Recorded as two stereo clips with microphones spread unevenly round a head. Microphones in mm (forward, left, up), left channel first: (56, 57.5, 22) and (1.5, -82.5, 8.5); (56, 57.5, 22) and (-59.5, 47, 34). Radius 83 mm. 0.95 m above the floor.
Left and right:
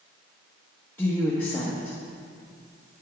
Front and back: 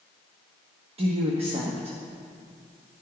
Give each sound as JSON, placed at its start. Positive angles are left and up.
{"t": 1.0, "sound": "a woman speaking", "azimuth_deg": 150, "distance_m": 1.1}